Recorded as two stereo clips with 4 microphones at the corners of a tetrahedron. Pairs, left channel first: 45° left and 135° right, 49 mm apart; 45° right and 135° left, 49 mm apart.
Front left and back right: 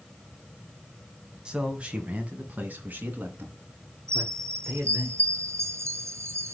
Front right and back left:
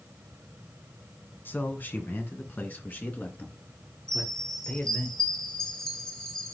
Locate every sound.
1.4 s a man speaking: 70° right, 1.7 m; by 5.1 s 95° right, 3.5 m
4.1 s a chime: 120° right, 1.4 m